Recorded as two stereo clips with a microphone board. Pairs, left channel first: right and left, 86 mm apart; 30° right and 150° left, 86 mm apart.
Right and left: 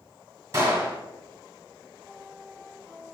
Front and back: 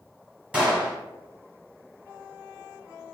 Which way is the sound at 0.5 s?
85° left.